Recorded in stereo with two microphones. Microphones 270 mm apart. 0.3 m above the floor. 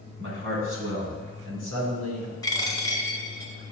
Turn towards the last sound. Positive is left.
turn(degrees=15)  # may be behind; listen again after turning